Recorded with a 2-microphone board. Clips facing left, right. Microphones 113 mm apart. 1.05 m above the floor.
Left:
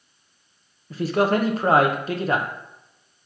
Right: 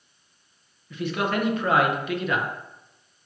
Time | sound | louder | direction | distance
0.9 | a man speaking | left 6 dB | 35° left (ahead or behind) | 0.9 m